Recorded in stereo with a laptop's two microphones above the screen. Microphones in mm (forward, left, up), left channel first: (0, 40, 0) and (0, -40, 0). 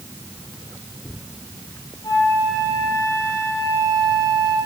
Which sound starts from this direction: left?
A flute, at 2.0 s.